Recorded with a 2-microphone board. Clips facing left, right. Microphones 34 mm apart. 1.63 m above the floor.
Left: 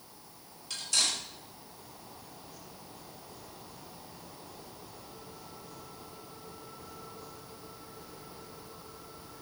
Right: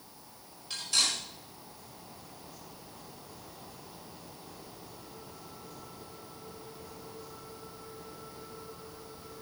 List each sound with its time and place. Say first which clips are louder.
0.7 s cutlery clinking: right 1 dB; 20° right (ahead or behind), 4 m